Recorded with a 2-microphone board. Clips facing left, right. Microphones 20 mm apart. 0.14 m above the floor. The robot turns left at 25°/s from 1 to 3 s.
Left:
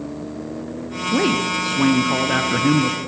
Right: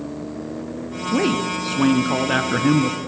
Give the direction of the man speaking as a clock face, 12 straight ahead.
12 o'clock.